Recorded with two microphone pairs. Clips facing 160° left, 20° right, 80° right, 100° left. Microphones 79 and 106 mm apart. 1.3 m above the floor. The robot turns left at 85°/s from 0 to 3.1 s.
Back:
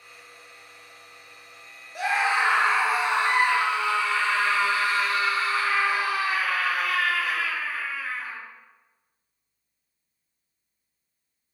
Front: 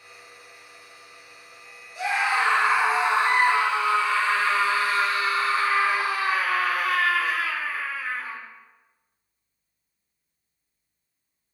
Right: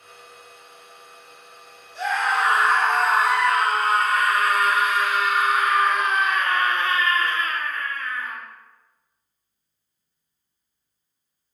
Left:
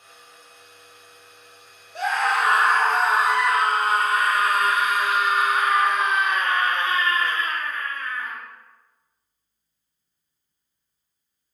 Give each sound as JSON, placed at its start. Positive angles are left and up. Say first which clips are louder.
{"t": 1.9, "sound": "a scream", "louder": "even, even", "azimuth_deg": 125, "distance_m": 1.1}